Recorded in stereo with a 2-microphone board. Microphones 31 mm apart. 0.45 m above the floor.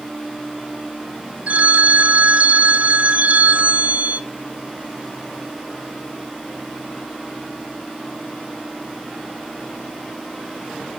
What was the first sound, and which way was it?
A phone ringing, 60° right (ahead or behind).